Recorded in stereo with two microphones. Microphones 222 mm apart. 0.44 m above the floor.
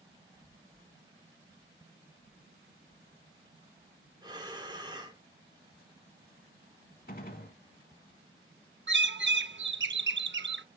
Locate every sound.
4.2 s breathing: 20° right (ahead or behind), 1.0 m
7.1 s a gunshot: 45° left (ahead or behind), 0.6 m
8.9 s a bird: 55° right (ahead or behind), 0.6 m